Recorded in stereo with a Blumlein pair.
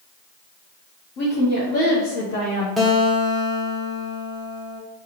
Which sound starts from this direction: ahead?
A guitar, at 2.8 s.